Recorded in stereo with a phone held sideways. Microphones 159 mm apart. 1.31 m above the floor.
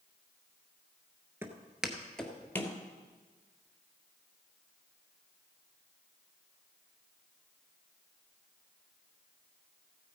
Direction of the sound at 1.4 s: 15° right (ahead or behind).